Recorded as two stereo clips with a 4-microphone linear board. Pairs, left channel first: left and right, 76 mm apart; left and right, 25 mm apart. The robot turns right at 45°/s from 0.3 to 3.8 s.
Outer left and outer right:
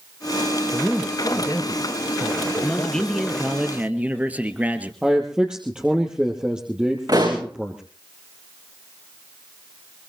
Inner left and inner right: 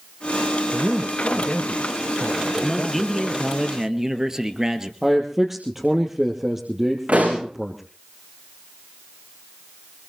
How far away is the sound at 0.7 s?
About 1.7 m.